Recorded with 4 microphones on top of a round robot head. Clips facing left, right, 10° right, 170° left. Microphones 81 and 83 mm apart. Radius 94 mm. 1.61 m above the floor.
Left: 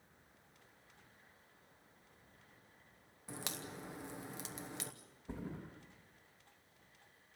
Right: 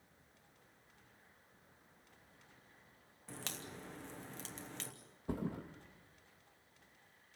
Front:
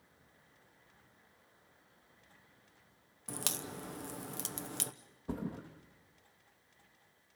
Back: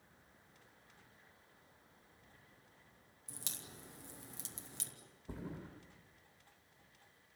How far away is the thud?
About 3 m.